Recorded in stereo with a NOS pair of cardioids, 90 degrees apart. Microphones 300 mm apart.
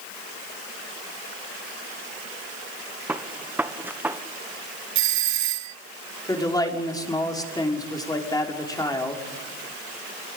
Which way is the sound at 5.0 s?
65° right.